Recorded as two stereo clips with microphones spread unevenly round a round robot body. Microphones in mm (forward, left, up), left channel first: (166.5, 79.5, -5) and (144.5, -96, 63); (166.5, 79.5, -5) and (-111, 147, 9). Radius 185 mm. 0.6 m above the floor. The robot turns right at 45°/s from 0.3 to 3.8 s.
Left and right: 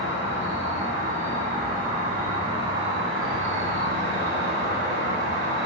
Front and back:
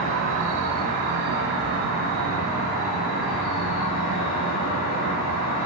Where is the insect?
120° left, 0.9 m; by 5.7 s 85° right, 0.9 m.